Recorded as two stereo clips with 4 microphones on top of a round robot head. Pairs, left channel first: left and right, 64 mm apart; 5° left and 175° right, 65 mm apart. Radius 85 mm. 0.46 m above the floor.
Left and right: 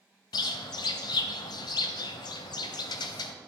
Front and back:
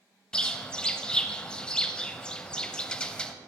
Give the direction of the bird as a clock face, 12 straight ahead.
9 o'clock.